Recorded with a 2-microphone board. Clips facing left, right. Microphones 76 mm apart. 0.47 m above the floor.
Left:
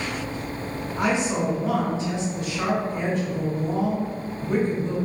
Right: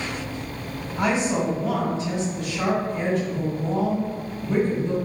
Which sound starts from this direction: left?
A woman speaking, at 1.0 s.